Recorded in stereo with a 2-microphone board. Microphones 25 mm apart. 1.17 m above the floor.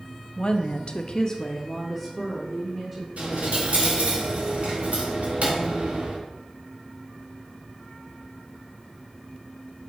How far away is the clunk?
No clunk in this recording.